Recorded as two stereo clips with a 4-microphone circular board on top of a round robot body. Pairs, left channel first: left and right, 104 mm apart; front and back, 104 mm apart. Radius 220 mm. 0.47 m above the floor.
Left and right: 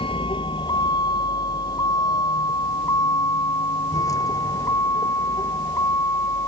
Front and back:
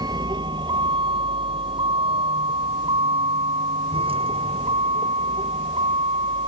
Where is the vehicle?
130° left; by 6.5 s 150° left.